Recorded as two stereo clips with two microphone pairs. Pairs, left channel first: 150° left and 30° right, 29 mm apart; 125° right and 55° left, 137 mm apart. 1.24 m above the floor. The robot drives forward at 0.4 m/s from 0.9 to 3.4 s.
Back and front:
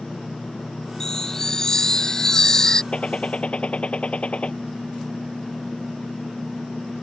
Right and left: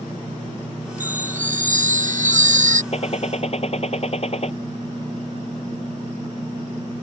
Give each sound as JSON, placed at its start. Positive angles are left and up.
{"t": 1.0, "sound": "a chime", "azimuth_deg": 80}
{"t": 2.9, "sound": "a gunshot", "azimuth_deg": -165}